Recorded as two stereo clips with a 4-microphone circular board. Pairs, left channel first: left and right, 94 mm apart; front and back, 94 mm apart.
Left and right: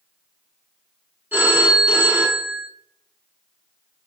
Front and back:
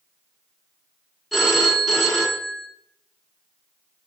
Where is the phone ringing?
90° right, 0.6 m.